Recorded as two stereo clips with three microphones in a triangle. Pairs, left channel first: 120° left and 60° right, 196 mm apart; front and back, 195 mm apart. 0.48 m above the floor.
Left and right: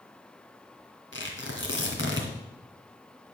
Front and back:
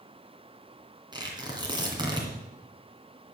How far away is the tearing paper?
About 2.5 m.